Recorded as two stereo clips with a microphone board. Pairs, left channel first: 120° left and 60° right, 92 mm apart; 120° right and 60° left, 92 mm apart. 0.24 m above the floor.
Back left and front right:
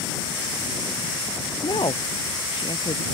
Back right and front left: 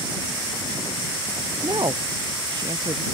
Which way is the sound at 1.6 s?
95° left.